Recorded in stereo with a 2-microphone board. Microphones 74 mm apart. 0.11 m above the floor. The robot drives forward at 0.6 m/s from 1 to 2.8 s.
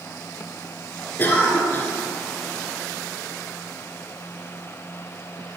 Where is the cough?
30° left (ahead or behind), 1.2 m.